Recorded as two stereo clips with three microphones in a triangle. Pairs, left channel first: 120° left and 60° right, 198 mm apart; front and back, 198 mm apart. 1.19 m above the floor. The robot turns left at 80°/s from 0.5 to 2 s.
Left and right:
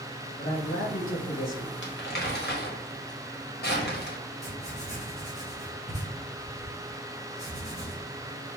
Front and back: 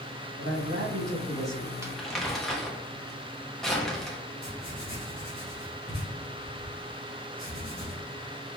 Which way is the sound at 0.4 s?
165° left.